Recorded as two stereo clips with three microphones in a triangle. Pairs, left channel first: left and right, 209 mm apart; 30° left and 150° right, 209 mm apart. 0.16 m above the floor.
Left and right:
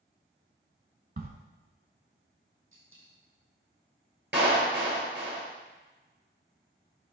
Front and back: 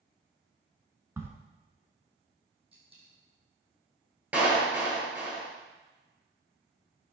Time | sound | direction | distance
1.2 | a crack | 75° right | 0.8 m
2.7 | a dropped coin | 85° right | 2 m
4.3 | a clap | 65° right | 2 m